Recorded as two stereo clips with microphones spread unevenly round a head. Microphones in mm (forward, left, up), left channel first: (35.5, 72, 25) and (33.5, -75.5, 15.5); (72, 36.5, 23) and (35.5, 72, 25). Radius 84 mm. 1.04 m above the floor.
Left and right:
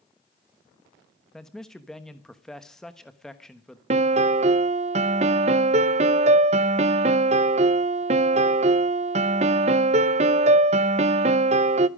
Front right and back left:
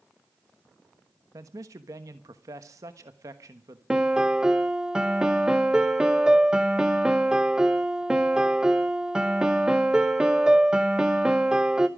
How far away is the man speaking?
About 1.1 m.